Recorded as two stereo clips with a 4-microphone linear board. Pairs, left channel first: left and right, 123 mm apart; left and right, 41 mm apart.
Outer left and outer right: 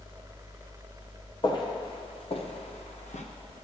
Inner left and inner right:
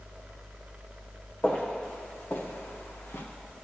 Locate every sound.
1.4 s footsteps: 35° left (ahead or behind), 1.7 m; by 3.2 s 70° left (ahead or behind), 1.5 m